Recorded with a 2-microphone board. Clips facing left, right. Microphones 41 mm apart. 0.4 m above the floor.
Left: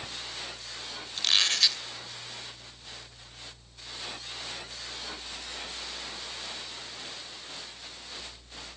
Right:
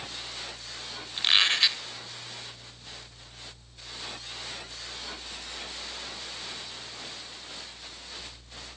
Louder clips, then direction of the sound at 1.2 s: Right 3 dB; 25° right (ahead or behind).